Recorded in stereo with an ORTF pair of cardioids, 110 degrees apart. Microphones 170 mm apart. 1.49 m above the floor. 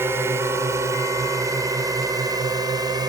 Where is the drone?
15° right; by 3.1 s 25° right.